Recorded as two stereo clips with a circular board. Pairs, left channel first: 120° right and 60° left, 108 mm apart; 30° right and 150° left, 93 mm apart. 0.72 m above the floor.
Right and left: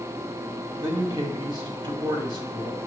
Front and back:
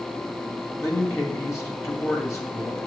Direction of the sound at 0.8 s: 25° left.